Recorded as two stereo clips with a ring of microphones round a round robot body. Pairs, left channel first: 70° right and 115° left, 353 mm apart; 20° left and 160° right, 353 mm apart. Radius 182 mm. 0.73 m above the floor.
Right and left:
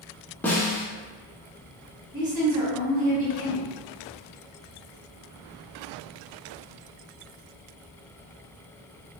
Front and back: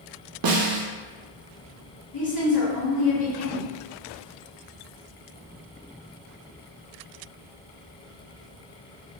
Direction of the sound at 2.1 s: 90° left.